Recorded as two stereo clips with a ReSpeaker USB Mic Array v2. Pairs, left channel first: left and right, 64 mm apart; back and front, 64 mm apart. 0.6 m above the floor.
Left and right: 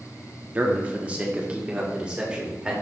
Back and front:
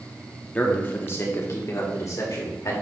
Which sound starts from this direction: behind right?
A man speaking, at 0.6 s.